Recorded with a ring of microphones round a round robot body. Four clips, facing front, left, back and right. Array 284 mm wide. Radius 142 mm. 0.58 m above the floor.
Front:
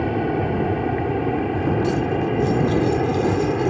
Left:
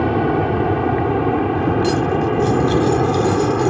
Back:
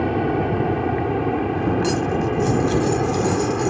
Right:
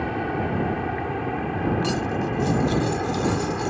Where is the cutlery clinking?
165° left.